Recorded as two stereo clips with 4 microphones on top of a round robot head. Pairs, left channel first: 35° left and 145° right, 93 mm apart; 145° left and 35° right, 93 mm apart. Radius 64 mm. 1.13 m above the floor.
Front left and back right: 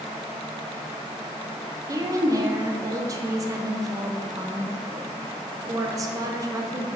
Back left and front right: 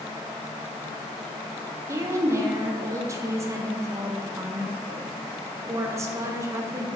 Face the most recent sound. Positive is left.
turn(degrees=-95)